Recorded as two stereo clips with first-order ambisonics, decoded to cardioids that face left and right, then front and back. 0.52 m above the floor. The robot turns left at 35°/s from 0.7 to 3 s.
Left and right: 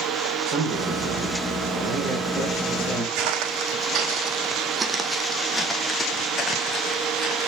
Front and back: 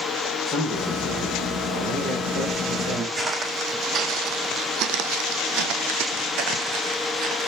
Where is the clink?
No clink in this recording.